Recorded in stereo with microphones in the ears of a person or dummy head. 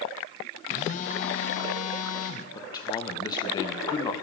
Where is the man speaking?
20° left (ahead or behind), 0.8 m.